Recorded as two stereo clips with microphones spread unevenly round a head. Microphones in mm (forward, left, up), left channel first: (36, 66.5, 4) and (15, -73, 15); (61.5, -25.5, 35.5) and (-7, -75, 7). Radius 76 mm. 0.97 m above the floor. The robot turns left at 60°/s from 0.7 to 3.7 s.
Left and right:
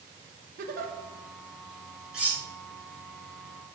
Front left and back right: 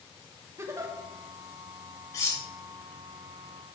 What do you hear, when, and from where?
0.6 s a giggle: 105° right, 1.0 m; by 0.9 s 120° right, 1.0 m
2.1 s cutlery clinking: 15° right, 2.0 m; by 2.4 s 30° right, 2.0 m